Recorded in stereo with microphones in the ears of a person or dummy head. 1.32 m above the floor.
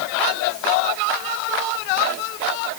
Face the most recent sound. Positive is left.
No sound to turn to.